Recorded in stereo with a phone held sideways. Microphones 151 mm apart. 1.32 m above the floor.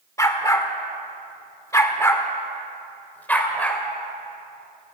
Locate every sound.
0.2 s a dog barking: 20° left (ahead or behind), 1.1 m; by 3.8 s 10° left (ahead or behind), 1.6 m